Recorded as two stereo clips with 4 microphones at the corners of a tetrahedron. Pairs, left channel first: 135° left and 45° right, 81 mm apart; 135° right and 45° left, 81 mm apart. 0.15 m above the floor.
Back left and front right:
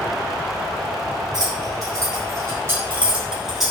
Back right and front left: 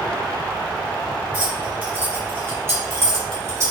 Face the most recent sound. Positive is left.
turn(degrees=45)